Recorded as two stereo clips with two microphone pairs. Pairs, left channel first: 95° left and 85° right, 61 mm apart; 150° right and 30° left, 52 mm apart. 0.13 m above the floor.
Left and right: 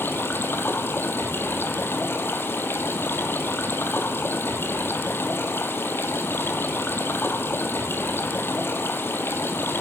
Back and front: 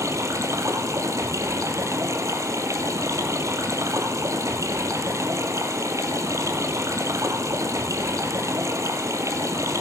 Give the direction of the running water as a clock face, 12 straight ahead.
11 o'clock.